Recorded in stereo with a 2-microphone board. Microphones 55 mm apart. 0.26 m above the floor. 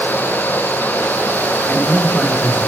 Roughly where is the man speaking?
Left.